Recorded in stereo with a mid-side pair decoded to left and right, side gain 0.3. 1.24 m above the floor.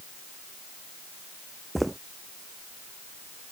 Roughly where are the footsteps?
Ahead.